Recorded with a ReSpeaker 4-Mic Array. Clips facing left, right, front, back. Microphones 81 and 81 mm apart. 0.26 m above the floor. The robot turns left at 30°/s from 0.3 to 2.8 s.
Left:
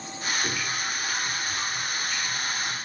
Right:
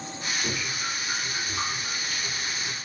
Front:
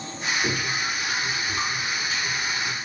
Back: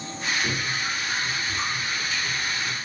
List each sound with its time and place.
0.4 s dripping: straight ahead, 6 m; by 2.8 s 70° right, 6 m